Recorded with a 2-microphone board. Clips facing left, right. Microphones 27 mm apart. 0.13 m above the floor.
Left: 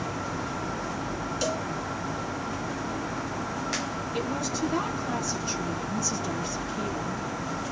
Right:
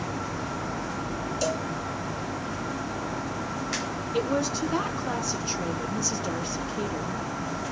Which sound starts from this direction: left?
A cowbell, at 1.4 s.